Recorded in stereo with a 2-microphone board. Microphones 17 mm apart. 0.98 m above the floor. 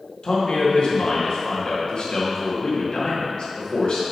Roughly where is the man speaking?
Left.